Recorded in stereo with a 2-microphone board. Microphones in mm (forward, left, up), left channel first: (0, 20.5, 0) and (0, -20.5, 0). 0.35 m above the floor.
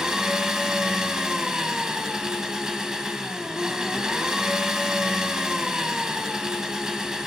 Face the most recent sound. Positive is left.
turn(degrees=-20)  # may be behind; listen again after turning